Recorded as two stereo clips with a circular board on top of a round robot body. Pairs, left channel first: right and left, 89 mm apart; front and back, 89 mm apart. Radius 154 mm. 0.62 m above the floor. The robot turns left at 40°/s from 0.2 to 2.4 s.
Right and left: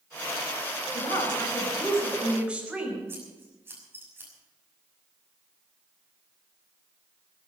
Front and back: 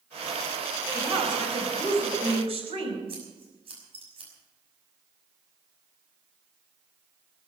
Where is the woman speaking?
135° right, 5 m; by 3.0 s 170° left, 5 m.